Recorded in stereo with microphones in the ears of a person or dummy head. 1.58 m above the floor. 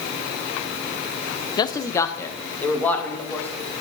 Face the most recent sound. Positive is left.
turn(degrees=10)  # may be behind; listen again after turning